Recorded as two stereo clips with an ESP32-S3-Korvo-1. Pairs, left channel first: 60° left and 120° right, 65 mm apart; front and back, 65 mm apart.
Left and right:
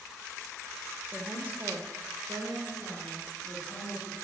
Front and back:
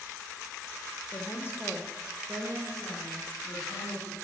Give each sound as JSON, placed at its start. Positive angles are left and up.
{"t": 1.1, "sound": "a woman speaking", "azimuth_deg": -40, "distance_m": 1.3}